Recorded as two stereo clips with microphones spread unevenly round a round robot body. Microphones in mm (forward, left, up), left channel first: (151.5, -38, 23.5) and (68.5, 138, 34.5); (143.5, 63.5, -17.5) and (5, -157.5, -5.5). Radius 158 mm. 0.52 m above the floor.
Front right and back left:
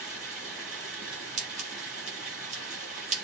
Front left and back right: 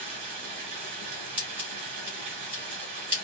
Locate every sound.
0.0 s running water: 160° right, 3.5 m
1.4 s scissors: 155° left, 1.1 m